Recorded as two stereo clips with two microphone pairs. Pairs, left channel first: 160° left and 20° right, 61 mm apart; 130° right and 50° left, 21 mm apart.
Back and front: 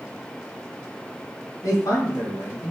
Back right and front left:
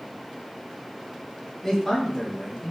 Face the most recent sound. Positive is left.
turn(degrees=155)